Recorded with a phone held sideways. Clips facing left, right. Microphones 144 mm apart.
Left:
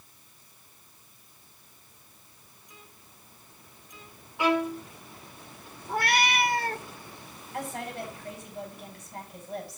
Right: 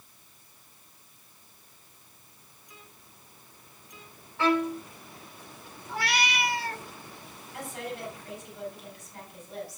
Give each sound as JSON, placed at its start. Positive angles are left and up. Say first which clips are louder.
{"t": 4.4, "sound": "a violin", "louder": "even", "side_deg": 15, "distance_m": 2.5}
{"t": 5.9, "sound": "a cat meowing", "louder": "left 4 dB", "side_deg": 50, "distance_m": 0.9}
{"t": 7.5, "sound": "a woman speaking", "louder": "left 2 dB", "side_deg": 55, "distance_m": 7.0}